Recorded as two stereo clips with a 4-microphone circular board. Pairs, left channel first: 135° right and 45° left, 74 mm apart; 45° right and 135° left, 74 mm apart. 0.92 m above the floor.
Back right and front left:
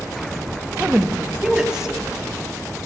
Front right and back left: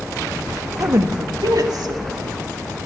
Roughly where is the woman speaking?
Left.